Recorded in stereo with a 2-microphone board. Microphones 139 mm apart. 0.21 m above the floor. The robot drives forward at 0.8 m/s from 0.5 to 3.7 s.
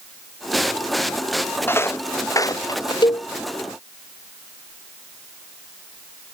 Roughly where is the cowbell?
Left.